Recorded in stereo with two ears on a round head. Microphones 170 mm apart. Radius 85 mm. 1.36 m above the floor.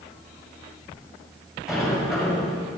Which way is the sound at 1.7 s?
Centre (ahead or behind).